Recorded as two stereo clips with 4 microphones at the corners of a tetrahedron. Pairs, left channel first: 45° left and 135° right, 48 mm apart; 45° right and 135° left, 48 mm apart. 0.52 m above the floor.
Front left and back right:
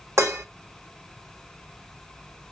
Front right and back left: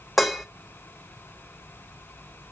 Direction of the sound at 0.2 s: 140° right.